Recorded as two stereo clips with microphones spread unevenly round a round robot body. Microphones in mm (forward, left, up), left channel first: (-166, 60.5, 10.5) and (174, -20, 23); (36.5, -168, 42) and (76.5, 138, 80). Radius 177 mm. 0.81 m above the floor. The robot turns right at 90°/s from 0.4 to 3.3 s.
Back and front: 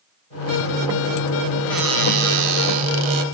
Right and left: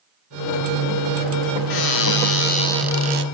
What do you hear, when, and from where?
1.7 s a cupboard door: 110° right, 2.5 m; by 3.2 s 30° left, 2.5 m